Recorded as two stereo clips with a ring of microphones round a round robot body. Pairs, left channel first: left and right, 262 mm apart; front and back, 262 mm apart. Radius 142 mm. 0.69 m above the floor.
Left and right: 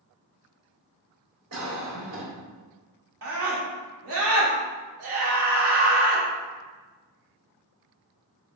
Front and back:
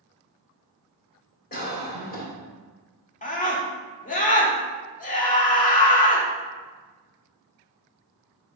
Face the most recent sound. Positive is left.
turn(degrees=-55)